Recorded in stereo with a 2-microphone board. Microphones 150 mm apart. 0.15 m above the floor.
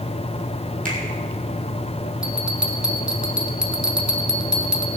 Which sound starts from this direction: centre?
A bell, at 2.2 s.